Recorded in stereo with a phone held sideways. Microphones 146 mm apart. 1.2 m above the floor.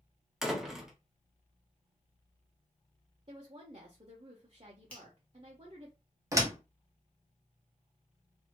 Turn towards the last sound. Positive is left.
turn(degrees=-20)  # may be behind; listen again after turning